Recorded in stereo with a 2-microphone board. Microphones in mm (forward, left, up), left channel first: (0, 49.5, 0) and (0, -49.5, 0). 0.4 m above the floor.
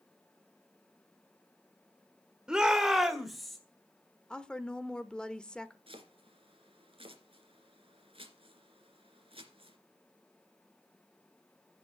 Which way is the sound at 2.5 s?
5° right (ahead or behind).